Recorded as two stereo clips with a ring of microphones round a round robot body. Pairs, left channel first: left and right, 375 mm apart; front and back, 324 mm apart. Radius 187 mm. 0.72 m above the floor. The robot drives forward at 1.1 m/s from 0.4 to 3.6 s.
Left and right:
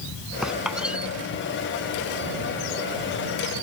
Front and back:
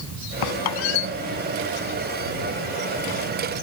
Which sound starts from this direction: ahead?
A squeak, at 0.4 s.